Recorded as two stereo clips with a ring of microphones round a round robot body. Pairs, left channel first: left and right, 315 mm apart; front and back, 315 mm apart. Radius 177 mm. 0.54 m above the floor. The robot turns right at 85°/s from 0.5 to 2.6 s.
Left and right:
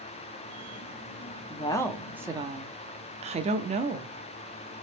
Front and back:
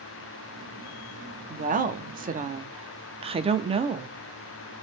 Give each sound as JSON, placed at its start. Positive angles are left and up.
{"t": 1.5, "sound": "a woman speaking", "azimuth_deg": 135, "distance_m": 0.6}